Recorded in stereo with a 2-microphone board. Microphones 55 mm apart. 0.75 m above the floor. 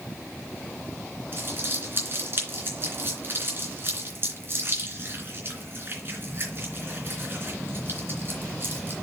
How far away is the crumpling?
About 3 m.